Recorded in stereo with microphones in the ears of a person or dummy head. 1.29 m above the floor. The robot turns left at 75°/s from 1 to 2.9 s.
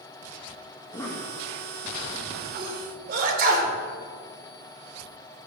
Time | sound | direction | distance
0.8 | a cough | 15° left (ahead or behind) | 1.7 m
2.6 | a sneeze | 20° right (ahead or behind) | 3.5 m